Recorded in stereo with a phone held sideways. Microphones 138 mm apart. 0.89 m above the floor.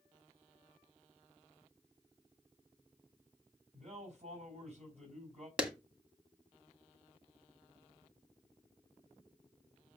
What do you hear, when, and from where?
3.7 s a man speaking: 55° right (ahead or behind), 5.5 m
5.6 s a clap: 5° right (ahead or behind), 1.8 m